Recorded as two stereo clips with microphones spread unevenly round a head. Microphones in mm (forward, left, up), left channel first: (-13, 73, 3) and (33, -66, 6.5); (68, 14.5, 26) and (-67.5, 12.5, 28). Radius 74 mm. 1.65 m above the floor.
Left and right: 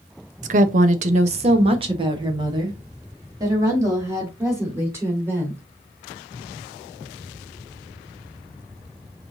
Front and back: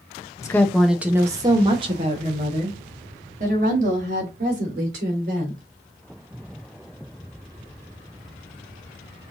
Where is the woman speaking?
65° right, 0.7 m; by 5.6 s 145° right, 3 m.